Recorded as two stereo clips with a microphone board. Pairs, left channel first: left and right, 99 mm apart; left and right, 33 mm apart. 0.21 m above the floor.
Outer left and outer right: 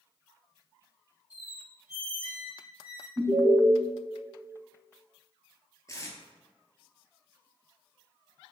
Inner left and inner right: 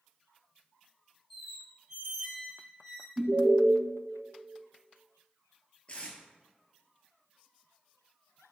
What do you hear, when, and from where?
1.3 s a squeak: 10° right (ahead or behind), 1.6 m
3.2 s an alarm: 50° right (ahead or behind), 1.3 m
5.9 s tape being pulled: 35° left (ahead or behind), 0.7 m